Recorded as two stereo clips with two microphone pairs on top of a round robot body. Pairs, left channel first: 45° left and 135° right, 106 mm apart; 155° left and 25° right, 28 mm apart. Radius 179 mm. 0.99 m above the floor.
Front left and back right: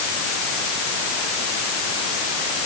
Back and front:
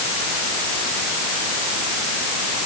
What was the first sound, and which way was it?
Only background noise.